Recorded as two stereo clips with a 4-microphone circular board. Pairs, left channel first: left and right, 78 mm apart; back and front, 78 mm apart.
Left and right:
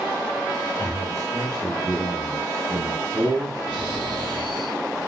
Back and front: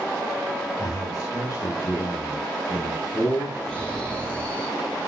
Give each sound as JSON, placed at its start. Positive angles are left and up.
{"t": 0.8, "sound": "a man speaking", "azimuth_deg": -140, "distance_m": 9.5}
{"t": 3.7, "sound": "snoring", "azimuth_deg": -105, "distance_m": 7.5}